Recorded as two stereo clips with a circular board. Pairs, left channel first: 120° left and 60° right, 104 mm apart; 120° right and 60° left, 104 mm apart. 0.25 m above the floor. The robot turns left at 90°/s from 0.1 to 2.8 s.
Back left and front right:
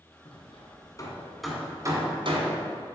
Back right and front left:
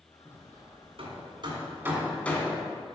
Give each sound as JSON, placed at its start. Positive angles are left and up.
{"t": 0.2, "sound": "hammering", "azimuth_deg": 135, "distance_m": 1.5}